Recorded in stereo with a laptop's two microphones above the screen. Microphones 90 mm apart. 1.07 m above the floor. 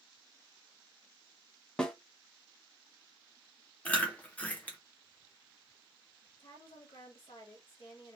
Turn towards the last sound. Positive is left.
turn(degrees=70)  # may be behind; listen again after turning